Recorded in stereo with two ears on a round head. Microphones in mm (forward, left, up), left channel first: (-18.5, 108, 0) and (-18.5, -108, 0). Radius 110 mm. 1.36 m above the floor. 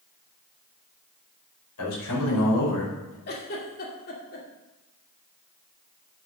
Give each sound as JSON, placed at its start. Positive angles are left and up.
{"t": 1.8, "sound": "a man speaking", "side_deg": 85, "distance_m": 5.5}
{"t": 3.3, "sound": "a giggle", "side_deg": 40, "distance_m": 2.5}